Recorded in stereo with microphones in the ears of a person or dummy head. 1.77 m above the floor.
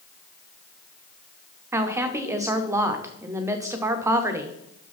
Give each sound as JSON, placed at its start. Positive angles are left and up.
{"t": 1.7, "sound": "a woman speaking", "side_deg": -10, "distance_m": 0.8}